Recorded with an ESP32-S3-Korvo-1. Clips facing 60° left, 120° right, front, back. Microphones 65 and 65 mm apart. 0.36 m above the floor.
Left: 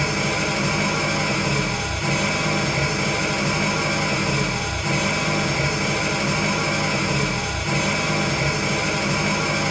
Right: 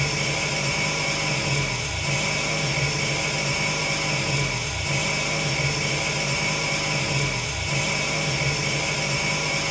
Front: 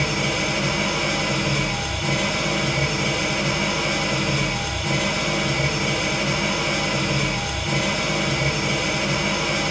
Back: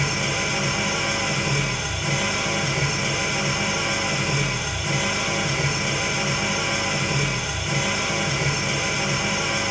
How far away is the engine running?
About 3 m.